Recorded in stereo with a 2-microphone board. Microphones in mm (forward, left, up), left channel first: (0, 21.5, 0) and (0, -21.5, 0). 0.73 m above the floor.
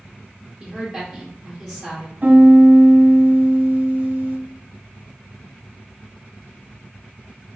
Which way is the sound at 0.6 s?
5° right (ahead or behind).